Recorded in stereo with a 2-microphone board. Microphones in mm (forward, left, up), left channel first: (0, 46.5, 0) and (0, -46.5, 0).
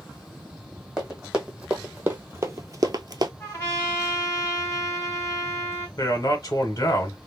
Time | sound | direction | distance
1.0 | running footsteps | 10° right (ahead or behind) | 1.2 m
3.4 | a trumpet | 35° left (ahead or behind) | 1.6 m
6.0 | a man speaking | 45° left (ahead or behind) | 1.1 m